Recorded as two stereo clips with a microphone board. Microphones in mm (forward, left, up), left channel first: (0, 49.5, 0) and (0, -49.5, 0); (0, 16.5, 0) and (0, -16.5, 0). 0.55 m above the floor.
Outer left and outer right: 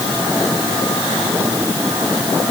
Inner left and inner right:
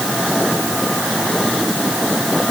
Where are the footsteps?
I don't hear footsteps.